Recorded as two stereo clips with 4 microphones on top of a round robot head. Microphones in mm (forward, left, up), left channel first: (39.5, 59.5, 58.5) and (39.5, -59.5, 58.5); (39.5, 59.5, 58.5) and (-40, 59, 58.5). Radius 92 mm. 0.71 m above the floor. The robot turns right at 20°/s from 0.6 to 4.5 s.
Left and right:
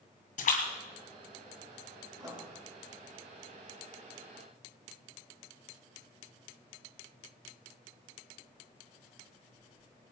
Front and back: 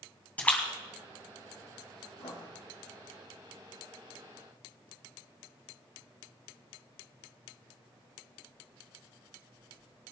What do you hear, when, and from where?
0.4 s a splash: 75° left, 2 m
2.2 s writing: 35° right, 6 m; by 2.5 s 30° right, 6 m